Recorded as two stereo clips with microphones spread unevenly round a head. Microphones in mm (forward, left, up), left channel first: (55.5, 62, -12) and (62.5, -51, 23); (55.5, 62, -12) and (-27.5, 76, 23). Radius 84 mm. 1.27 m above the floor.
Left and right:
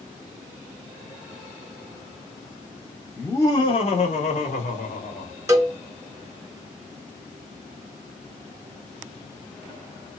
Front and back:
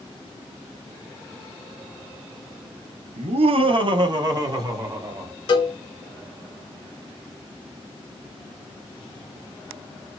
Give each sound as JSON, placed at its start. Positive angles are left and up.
{"t": 3.2, "sound": "laughter", "azimuth_deg": 175, "distance_m": 0.7}
{"t": 5.5, "sound": "a cowbell", "azimuth_deg": -20, "distance_m": 1.6}